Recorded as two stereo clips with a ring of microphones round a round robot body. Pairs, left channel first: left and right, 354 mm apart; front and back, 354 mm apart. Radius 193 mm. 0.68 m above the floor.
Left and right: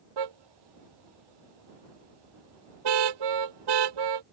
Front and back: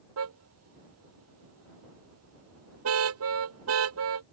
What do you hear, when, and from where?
0.2 s a car horn: 125° right